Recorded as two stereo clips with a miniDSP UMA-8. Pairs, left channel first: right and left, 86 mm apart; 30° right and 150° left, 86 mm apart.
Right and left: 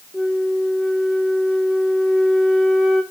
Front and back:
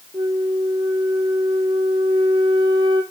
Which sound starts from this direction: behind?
A flute, at 0.1 s.